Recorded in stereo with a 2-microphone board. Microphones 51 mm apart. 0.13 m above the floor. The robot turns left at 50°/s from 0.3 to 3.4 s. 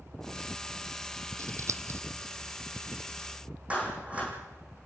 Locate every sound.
1.4 s scissors: 80° right, 0.8 m; by 2.0 s 60° right (ahead or behind), 0.8 m
3.7 s a clap: 25° right (ahead or behind), 6 m